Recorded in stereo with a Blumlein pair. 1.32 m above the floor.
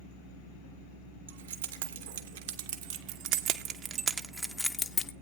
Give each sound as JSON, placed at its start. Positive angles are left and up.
{"t": 1.3, "sound": "keys jangling", "azimuth_deg": -65, "distance_m": 1.8}